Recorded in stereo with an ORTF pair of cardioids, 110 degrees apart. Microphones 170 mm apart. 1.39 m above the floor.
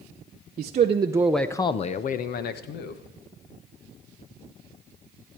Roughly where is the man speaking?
Ahead right.